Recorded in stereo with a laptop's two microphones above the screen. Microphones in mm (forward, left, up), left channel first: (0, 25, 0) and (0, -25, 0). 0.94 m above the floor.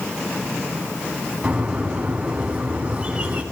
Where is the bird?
20° right (ahead or behind), 9 m.